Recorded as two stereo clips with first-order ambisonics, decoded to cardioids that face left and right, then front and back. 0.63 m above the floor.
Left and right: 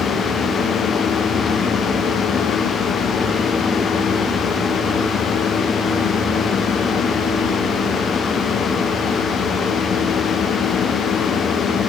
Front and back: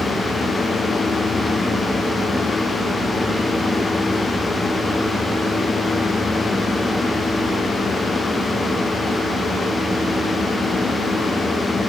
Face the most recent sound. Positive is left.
No sound to turn to.